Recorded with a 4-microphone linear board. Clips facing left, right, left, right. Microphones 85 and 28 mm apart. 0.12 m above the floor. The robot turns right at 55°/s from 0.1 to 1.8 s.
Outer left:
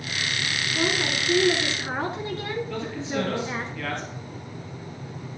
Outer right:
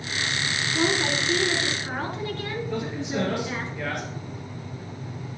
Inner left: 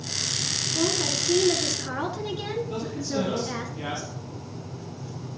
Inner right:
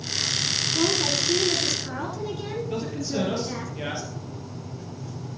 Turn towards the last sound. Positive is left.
turn(degrees=-20)  # may be behind; listen again after turning